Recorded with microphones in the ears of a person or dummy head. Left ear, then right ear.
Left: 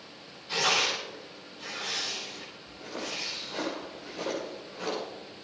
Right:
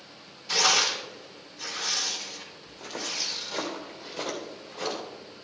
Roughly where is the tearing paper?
Right.